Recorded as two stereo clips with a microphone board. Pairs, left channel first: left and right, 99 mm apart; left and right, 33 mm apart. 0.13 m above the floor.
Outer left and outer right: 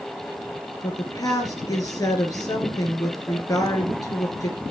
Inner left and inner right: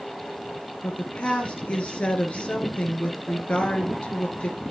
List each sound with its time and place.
0.8 s a woman speaking: 35° left (ahead or behind), 2 m